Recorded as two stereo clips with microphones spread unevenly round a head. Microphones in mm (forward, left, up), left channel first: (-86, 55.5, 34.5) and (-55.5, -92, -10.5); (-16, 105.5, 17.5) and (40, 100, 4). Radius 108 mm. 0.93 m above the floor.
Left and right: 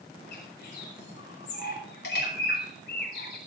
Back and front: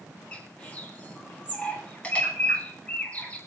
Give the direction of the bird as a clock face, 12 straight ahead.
8 o'clock.